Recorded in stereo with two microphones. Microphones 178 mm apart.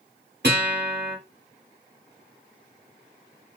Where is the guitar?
70° right (ahead or behind), 1.6 m.